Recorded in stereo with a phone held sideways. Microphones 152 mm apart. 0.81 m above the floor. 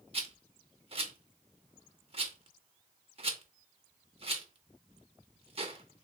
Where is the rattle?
40° right (ahead or behind), 0.7 m.